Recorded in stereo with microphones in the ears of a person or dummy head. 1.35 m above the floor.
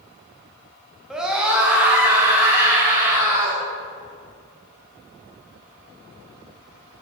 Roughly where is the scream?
Centre.